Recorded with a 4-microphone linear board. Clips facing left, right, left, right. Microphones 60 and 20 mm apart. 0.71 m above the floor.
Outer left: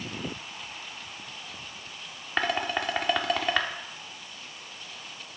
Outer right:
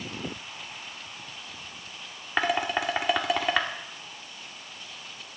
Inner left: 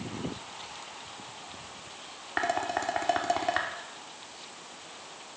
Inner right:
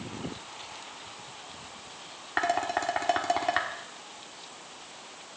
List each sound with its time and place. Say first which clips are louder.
2.4 s dishes clattering: outer right 2 dB, inner right 2 dB; 5° right (ahead or behind), 1.2 m